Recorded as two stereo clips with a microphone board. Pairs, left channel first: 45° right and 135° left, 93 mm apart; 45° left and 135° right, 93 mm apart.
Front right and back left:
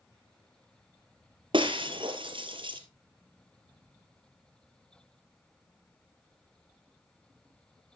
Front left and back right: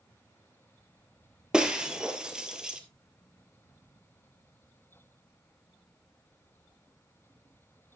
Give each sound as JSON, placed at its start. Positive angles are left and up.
{"t": 1.5, "sound": "breaking glass", "azimuth_deg": 145, "distance_m": 1.3}